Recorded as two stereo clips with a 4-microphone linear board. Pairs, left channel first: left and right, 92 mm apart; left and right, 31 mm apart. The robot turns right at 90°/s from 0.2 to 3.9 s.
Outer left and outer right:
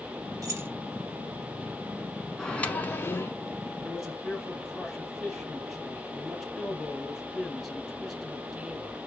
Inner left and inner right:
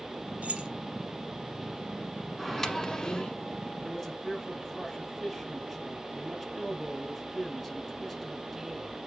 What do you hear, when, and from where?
0.4 s keys jangling: 40° right (ahead or behind), 1.8 m; by 0.7 s 20° right (ahead or behind), 1.8 m
2.4 s a microwave: 5° left (ahead or behind), 0.9 m; by 3.3 s 25° left (ahead or behind), 0.9 m
3.8 s a man speaking: 5° right (ahead or behind), 1.9 m; by 9.0 s centre (ahead or behind), 1.9 m